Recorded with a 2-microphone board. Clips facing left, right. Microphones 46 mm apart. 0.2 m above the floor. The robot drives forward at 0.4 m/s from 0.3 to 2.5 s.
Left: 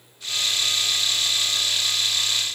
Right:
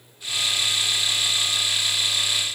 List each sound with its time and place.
Only background noise.